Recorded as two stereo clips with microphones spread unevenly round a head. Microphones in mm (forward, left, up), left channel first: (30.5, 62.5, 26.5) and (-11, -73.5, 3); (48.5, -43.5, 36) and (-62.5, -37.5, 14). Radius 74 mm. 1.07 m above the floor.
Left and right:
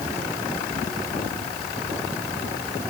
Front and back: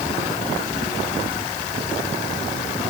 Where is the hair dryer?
No hair dryer in this recording.